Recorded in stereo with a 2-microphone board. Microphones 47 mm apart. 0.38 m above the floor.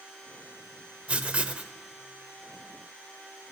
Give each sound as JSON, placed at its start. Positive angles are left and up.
{"t": 1.1, "sound": "writing", "side_deg": -25, "distance_m": 0.7}